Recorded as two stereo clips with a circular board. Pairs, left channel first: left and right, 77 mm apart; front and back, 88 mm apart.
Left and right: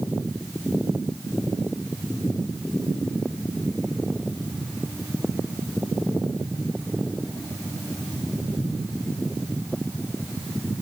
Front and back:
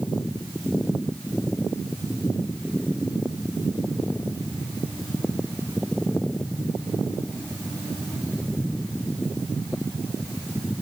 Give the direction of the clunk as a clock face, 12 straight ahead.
I don't hear a clunk.